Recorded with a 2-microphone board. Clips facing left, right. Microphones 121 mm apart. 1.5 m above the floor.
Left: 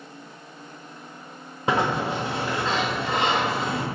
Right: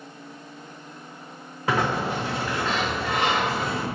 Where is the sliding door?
25° left (ahead or behind), 1.0 m.